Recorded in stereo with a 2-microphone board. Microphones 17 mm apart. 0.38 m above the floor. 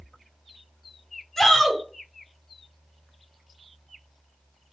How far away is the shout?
About 2.5 m.